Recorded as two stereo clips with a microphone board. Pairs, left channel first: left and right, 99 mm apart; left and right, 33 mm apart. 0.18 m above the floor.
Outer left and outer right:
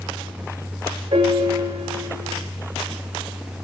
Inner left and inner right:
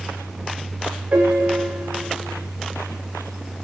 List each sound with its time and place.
1.1 s a piano: 70° right (ahead or behind), 9 m